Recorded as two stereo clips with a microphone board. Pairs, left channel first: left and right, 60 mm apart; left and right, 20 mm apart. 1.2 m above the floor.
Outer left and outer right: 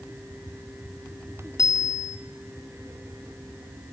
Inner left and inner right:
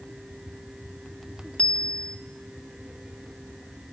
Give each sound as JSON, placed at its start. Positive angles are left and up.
{"t": 1.6, "sound": "a bicycle bell", "side_deg": 75, "distance_m": 2.0}